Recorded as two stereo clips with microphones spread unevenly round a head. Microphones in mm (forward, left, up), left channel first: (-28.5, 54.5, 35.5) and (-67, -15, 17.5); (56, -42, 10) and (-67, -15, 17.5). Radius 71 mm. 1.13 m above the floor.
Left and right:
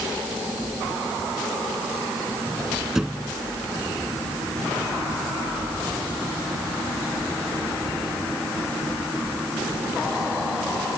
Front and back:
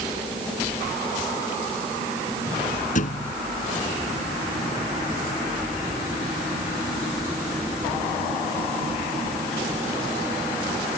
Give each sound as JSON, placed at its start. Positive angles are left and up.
{"t": 3.0, "sound": "a thud", "azimuth_deg": -30}